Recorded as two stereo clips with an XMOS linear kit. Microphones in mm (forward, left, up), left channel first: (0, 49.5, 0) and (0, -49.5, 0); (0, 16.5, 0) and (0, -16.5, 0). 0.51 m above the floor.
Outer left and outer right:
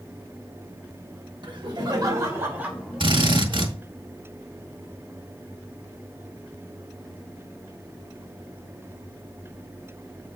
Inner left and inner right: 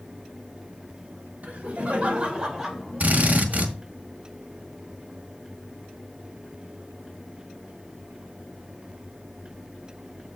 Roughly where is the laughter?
Right.